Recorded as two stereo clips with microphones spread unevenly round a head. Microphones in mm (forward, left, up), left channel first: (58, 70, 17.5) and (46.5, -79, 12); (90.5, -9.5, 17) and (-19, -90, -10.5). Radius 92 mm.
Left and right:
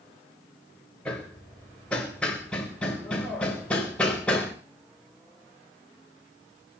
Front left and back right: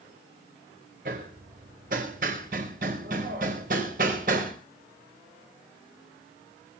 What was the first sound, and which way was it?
Hammering, 170° left.